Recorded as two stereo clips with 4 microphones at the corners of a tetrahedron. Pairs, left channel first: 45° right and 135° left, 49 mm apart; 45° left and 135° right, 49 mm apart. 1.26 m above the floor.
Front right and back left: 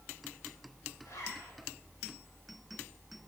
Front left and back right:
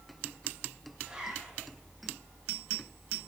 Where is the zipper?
60° right, 1.9 m.